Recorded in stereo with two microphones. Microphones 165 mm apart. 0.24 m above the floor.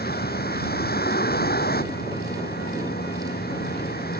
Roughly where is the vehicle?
Left.